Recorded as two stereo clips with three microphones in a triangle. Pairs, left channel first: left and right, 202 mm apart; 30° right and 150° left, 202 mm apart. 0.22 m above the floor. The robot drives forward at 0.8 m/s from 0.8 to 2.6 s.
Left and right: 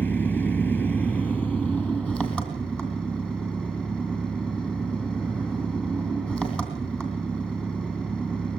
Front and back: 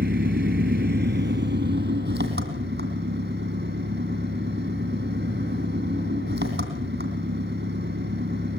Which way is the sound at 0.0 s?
170° left.